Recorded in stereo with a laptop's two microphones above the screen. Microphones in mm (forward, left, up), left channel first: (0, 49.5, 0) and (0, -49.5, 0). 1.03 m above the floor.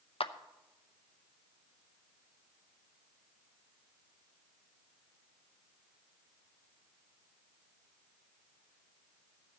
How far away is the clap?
About 0.6 m.